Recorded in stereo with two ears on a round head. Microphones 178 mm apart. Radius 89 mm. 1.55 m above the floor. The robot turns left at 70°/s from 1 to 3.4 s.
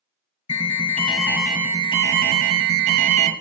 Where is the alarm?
35° left, 1.4 m; by 3.3 s 130° right, 1.4 m.